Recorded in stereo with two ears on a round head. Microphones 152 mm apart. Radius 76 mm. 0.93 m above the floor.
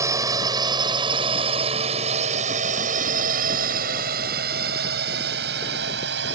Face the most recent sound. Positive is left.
turn(degrees=-70)  # may be behind; listen again after turning